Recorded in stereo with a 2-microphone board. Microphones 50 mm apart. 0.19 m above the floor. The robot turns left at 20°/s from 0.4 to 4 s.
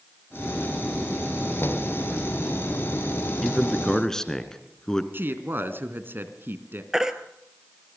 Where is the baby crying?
10° right (ahead or behind), 1.7 m.